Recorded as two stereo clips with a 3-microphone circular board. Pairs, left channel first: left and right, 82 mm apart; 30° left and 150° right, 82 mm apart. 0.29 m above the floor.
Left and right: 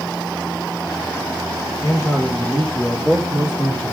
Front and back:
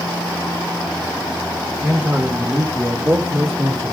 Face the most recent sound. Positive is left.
turn(degrees=160)